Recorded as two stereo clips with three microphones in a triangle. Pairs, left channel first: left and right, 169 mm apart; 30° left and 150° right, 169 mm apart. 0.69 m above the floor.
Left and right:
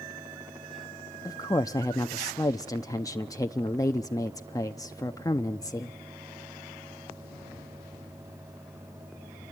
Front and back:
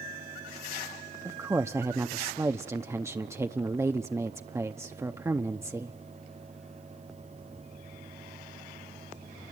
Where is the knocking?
No knocking in this recording.